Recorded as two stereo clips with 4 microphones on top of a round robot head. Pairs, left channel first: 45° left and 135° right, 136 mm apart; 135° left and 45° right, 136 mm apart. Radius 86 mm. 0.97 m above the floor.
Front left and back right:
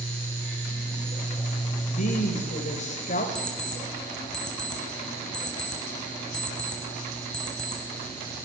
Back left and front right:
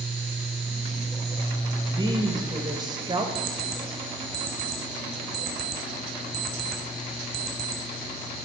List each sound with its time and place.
1.9 s a woman speaking: 15° left, 4 m
3.4 s an alarm clock: 40° right, 4 m